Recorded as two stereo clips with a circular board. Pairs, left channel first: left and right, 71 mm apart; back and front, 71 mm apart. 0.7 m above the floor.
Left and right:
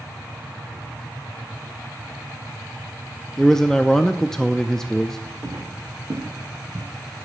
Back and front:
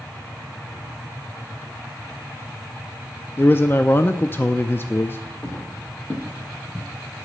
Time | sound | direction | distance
3.4 | a man speaking | 165° left | 0.5 m
5.4 | footsteps | 130° right | 3 m